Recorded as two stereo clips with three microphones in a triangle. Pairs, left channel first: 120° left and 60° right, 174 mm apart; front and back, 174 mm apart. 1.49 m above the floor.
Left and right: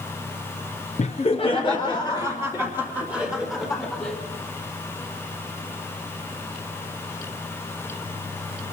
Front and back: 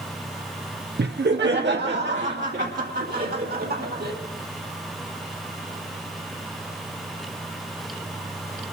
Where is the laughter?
165° left, 0.6 m; by 4.1 s 165° right, 2.5 m.